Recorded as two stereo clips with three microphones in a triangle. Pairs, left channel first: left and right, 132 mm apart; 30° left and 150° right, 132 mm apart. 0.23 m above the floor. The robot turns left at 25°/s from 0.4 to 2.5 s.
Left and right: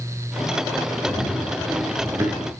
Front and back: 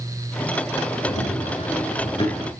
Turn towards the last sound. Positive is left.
turn(degrees=-35)